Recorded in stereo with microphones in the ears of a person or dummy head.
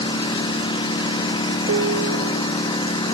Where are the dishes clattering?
70° right (ahead or behind).